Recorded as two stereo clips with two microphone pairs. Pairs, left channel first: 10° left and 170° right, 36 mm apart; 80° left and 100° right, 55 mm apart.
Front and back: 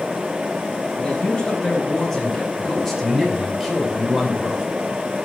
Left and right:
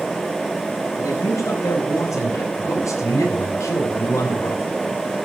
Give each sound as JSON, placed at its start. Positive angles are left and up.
{"t": 1.0, "sound": "a man speaking", "azimuth_deg": 80, "distance_m": 5.0}